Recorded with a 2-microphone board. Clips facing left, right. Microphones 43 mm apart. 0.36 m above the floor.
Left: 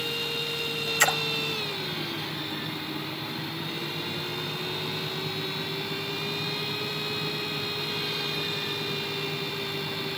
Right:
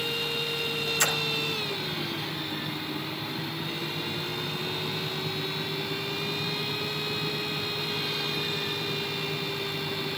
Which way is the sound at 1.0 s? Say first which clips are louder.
Left 5 dB; 45° left (ahead or behind).